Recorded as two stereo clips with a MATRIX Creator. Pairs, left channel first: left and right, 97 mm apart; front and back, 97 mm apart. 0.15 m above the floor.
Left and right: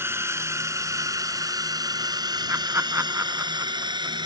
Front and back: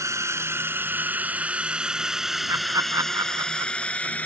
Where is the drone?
140° right; by 4.2 s 70° right.